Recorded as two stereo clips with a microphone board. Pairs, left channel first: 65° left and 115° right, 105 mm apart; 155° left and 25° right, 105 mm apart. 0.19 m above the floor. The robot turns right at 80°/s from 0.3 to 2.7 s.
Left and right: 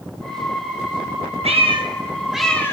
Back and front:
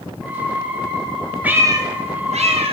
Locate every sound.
1.4 s a cat meowing: 100° right, 4.5 m; by 2.7 s straight ahead, 4.5 m